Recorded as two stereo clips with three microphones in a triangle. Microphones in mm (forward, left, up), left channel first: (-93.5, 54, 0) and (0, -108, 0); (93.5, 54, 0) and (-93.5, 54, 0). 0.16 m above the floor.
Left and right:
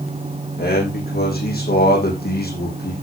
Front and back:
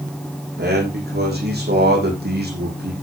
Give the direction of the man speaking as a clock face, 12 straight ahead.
7 o'clock.